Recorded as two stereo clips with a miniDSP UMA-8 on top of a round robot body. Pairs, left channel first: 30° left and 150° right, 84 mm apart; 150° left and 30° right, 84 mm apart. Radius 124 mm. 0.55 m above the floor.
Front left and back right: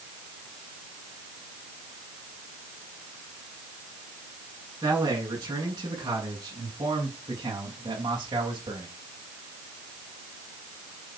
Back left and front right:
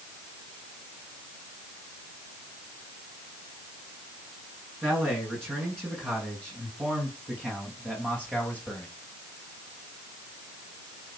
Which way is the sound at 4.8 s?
95° right.